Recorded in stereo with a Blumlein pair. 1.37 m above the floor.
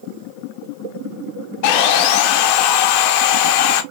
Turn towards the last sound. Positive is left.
turn(degrees=45)